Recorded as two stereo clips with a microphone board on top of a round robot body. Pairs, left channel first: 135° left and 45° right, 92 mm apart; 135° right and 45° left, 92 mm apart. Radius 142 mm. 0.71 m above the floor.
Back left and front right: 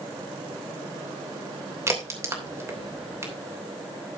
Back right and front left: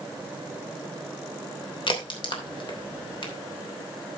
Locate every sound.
1.9 s a crack: 105° right, 3 m